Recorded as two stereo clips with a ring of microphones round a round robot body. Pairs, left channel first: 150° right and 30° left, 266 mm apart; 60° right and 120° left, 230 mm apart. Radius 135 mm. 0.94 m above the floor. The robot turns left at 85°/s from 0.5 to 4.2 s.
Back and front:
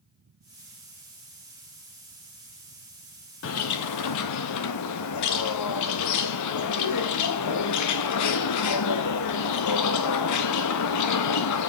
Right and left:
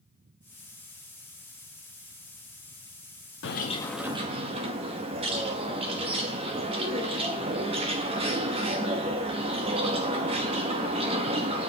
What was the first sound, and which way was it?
A bird, 105° right.